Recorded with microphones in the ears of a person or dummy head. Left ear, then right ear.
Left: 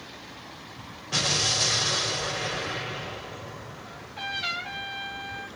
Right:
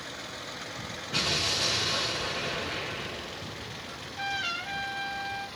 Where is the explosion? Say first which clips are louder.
Left 3 dB; 80° left, 4 m.